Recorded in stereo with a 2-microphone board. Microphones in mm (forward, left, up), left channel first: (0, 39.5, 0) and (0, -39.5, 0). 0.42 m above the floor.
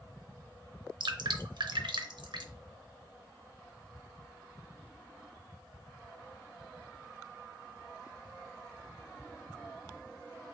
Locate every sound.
1.0 s dripping: 70° right (ahead or behind), 0.7 m